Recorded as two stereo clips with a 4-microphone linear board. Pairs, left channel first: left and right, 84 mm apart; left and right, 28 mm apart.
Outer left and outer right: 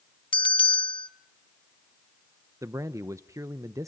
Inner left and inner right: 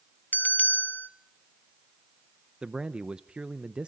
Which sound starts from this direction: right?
A man speaking, at 2.6 s.